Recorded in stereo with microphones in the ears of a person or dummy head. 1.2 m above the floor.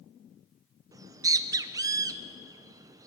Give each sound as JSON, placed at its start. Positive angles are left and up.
{"t": 0.9, "sound": "a bird", "side_deg": -20, "distance_m": 0.5}